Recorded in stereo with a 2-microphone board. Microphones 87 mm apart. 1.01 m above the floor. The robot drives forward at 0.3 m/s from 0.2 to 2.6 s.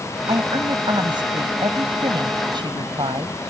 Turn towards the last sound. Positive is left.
turn(degrees=-65)  # may be behind; listen again after turning